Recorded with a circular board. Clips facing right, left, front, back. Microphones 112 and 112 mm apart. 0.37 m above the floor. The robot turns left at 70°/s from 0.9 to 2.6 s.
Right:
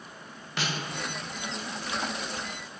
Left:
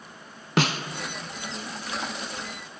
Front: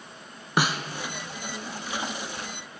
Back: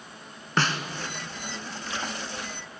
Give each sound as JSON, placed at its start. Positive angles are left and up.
{"t": 0.6, "sound": "a snare drum", "azimuth_deg": 80, "distance_m": 0.6}